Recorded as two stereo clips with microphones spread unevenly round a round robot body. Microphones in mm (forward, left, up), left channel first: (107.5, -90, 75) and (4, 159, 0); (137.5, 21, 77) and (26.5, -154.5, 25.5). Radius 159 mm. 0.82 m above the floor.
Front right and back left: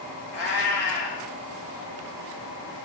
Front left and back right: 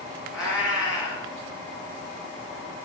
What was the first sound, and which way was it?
A cat meowing, 30° right.